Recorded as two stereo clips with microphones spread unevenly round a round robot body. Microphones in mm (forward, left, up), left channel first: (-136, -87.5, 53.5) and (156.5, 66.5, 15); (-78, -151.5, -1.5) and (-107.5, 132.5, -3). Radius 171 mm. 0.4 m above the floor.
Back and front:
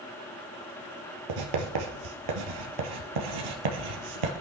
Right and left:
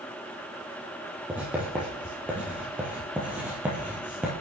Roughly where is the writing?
Ahead.